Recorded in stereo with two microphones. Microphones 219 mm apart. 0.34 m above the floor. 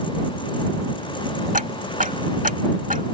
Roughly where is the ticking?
Right.